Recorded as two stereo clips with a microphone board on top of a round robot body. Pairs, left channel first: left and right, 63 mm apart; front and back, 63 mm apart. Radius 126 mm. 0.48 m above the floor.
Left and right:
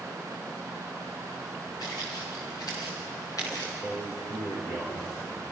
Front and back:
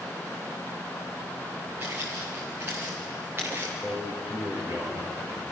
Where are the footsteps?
115° left, 4.5 m; by 3.7 s 125° left, 5.5 m.